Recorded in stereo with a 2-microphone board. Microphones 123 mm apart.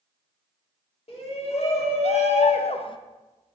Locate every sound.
1.1 s a shout: 55° left (ahead or behind), 1.7 m; by 3.0 s 40° left (ahead or behind), 0.6 m